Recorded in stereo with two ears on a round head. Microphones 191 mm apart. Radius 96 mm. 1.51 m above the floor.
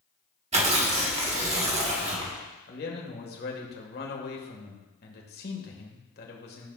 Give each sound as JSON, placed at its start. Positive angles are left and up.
{"t": 0.5, "sound": "tearing paper", "side_deg": -30, "distance_m": 1.4}
{"t": 2.7, "sound": "a man speaking", "side_deg": 45, "distance_m": 1.7}